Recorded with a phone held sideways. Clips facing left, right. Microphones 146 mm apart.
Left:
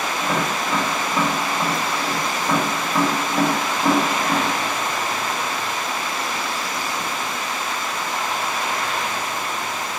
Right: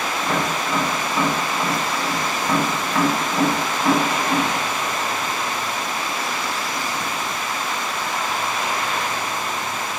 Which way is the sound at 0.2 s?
15° left (ahead or behind).